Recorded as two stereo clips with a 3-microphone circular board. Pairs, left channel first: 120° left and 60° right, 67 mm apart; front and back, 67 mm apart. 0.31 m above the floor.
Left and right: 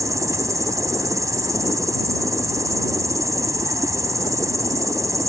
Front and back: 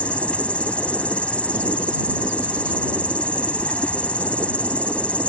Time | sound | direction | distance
0.0 | an insect | 65° right | ?